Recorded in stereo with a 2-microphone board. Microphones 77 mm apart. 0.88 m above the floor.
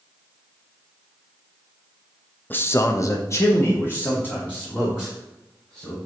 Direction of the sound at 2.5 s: 25° left (ahead or behind).